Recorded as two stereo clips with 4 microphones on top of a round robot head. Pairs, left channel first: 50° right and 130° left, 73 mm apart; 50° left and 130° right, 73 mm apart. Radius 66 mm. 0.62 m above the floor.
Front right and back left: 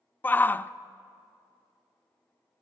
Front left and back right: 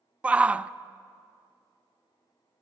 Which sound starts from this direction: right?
A shout, at 0.2 s.